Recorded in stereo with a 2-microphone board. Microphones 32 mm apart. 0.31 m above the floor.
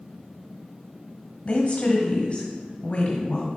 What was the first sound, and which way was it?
A woman speaking, 30° left (ahead or behind).